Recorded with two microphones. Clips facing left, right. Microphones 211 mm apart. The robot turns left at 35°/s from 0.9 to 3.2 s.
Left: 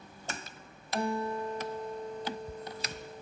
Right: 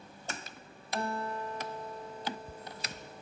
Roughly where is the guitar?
Behind.